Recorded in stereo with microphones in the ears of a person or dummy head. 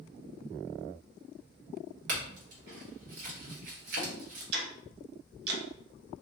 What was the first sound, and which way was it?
A clink, 70° right (ahead or behind).